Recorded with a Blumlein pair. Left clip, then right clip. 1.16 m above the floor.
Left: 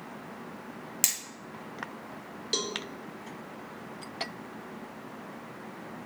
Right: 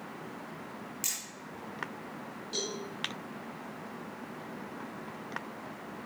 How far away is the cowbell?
About 2 m.